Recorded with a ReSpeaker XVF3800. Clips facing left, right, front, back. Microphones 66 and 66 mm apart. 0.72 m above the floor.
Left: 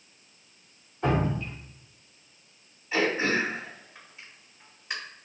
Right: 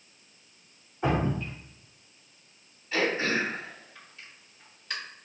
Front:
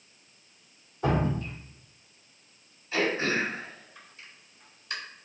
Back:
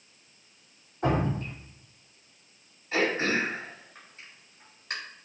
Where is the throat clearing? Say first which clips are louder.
Left 2 dB, back 1 dB; 165° left, 2 m.